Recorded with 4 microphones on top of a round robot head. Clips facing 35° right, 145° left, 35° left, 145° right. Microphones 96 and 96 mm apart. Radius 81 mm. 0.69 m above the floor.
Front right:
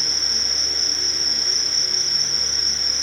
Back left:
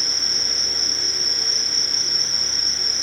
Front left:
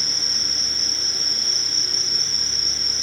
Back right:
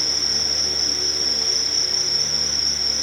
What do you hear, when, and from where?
0.0 s an insect: 90° left